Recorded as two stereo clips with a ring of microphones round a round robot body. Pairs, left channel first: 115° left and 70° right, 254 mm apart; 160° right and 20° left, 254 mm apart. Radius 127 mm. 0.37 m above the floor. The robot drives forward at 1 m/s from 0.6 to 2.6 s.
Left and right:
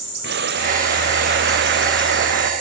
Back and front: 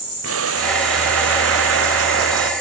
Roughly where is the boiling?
Ahead.